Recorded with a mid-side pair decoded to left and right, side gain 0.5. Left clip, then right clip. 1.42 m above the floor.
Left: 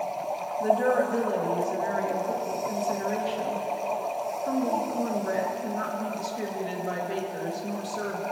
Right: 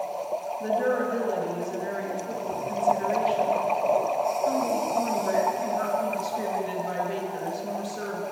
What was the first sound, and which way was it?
A woman speaking, 10° left.